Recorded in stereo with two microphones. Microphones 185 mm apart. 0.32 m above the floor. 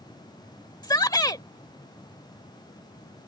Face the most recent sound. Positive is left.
turn(degrees=20)  # may be behind; listen again after turning